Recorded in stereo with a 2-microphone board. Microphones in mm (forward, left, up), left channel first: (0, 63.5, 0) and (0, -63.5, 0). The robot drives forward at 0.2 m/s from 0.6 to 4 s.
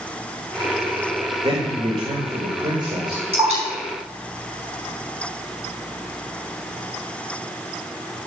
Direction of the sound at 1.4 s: 45° right (ahead or behind).